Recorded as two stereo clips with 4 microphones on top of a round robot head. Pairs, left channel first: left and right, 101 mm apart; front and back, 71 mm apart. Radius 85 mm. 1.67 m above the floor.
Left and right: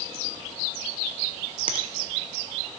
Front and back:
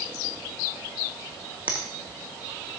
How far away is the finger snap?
About 0.7 m.